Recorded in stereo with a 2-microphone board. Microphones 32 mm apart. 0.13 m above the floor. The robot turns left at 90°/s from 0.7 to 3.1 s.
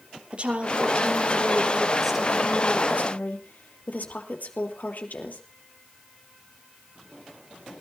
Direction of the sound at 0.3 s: 50° right.